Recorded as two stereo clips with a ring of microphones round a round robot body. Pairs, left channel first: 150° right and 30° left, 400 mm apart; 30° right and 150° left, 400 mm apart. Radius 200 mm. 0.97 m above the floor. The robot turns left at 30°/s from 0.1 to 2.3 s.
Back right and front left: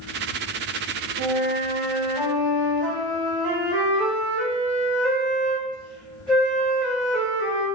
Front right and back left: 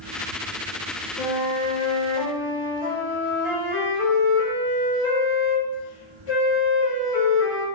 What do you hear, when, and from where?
1.2 s a flute: 30° right, 1.5 m; by 7.7 s 60° right, 1.5 m